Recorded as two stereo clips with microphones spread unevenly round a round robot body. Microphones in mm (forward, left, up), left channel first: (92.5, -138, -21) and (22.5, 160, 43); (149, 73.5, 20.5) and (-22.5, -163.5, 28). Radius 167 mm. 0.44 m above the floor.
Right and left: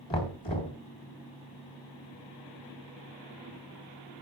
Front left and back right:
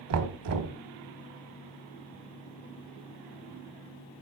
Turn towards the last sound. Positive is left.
turn(degrees=-135)